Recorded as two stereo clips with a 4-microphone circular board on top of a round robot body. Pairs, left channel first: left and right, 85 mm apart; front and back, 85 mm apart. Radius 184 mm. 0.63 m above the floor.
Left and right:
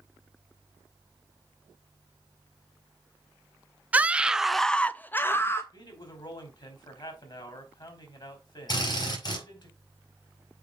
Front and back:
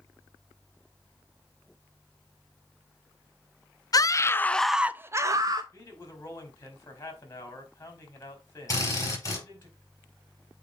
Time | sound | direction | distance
3.9 | a scream | 25° right | 0.7 m
5.7 | a man speaking | 60° left | 2.5 m
8.7 | a drill | 55° left | 4.5 m